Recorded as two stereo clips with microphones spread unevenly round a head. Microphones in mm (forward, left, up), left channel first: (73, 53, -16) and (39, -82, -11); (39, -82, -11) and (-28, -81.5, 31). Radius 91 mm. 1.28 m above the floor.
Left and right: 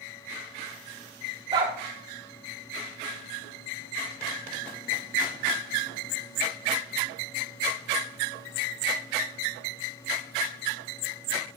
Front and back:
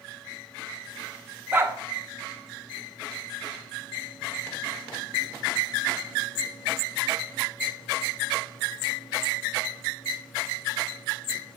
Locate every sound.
1.5 s a dog barking: 165° right, 1.2 m